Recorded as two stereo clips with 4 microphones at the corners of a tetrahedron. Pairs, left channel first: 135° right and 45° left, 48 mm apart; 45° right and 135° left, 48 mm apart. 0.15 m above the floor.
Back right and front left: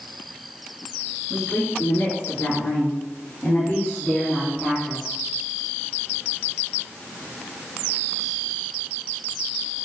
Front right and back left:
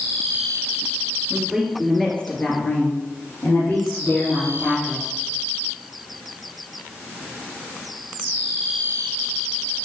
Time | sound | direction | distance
1.3 | a woman speaking | 145° right | 3 m